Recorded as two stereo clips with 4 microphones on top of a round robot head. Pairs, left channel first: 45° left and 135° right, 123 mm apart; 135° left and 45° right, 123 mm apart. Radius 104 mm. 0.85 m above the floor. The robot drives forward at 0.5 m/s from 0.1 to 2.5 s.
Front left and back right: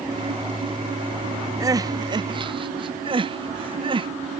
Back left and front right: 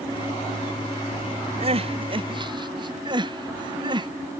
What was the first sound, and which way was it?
Crying, 75° right.